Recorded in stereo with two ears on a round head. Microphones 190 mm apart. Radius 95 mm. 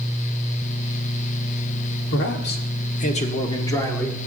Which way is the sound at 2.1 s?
60° left (ahead or behind).